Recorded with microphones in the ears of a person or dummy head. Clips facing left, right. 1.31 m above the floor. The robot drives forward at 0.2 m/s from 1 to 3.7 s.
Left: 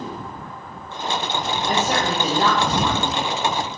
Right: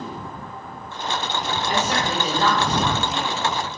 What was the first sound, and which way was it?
A woman speaking, 35° left (ahead or behind).